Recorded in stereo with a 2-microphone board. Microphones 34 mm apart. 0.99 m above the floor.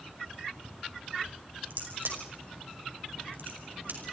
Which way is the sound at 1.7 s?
80° right.